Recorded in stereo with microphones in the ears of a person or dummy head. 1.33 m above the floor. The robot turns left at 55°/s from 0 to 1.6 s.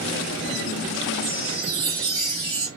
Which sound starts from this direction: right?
A chime, at 1.2 s.